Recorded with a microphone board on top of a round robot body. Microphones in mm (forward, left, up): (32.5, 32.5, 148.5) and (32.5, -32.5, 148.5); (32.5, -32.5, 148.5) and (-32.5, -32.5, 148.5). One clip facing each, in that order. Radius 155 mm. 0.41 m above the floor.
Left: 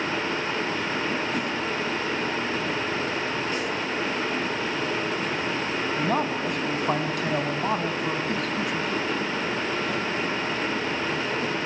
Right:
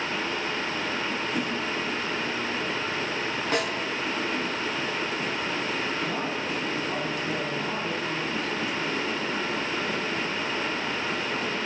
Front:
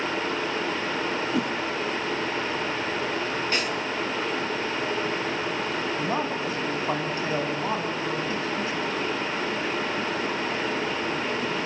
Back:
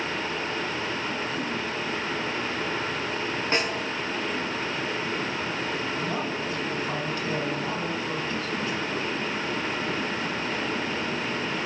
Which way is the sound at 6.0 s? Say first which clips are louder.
Left 4 dB, front 2 dB; 70° left.